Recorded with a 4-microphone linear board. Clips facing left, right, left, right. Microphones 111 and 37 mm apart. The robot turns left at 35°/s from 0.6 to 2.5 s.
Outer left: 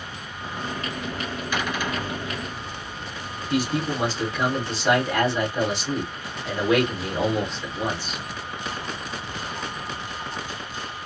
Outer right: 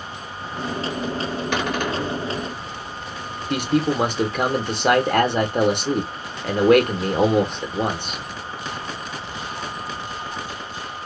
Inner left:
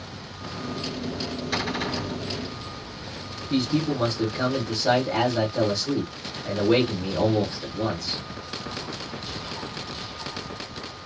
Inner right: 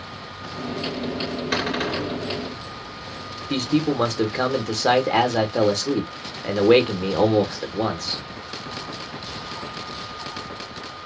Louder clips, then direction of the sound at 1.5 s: Outer right 3 dB, inner right 3 dB; 75° right (ahead or behind).